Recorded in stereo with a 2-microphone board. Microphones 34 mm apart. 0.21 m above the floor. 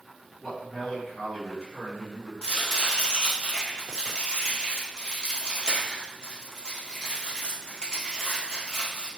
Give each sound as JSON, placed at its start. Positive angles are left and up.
{"t": 0.4, "sound": "a man speaking", "side_deg": 15, "distance_m": 2.0}
{"t": 2.4, "sound": "chopping", "side_deg": 25, "distance_m": 1.5}